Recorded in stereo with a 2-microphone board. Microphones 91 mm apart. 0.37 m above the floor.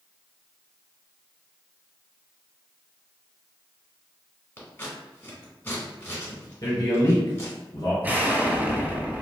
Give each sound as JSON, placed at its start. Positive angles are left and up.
{"t": 4.6, "sound": "scissors", "side_deg": 30, "distance_m": 1.4}
{"t": 6.6, "sound": "a man speaking", "side_deg": 50, "distance_m": 2.0}
{"t": 8.0, "sound": "an explosion", "side_deg": -20, "distance_m": 0.6}